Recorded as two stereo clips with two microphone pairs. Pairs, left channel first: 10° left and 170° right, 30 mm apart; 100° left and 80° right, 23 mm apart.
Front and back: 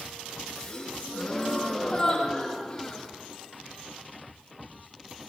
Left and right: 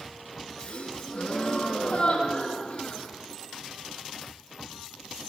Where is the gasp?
80° left, 6 m.